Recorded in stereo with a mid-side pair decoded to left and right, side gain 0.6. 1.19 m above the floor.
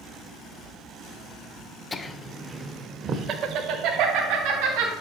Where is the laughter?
25° left, 0.8 m; by 4.9 s 80° right, 1.9 m.